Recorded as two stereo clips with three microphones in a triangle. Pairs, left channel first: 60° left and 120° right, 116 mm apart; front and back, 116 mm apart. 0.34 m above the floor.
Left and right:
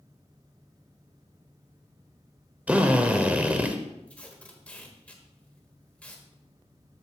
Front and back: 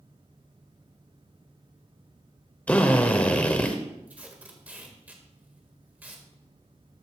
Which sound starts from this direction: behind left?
Tape being pulled, at 4.1 s.